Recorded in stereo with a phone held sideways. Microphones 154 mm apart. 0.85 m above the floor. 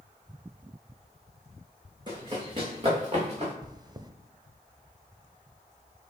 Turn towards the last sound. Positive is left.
turn(degrees=-25)  # may be behind; listen again after turning